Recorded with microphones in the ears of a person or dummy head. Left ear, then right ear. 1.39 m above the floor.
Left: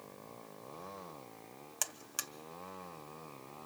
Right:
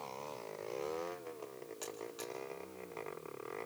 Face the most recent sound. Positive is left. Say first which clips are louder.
# left 5 dB
turn(degrees=65)  # may be behind; listen again after turning